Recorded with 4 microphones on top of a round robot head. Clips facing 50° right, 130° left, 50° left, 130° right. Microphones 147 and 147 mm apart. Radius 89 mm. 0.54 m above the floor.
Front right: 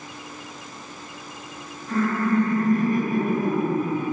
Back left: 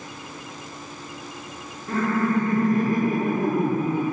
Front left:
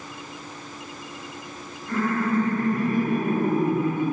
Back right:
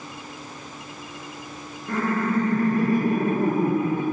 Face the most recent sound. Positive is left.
turn(degrees=170)